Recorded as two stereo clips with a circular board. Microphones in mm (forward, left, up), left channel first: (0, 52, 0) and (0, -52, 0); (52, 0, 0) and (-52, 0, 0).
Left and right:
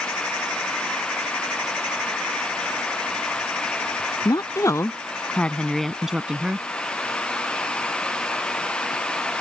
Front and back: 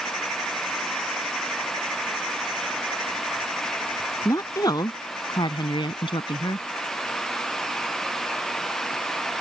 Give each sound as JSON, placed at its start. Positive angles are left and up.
{"t": 4.2, "sound": "a woman speaking", "azimuth_deg": 50}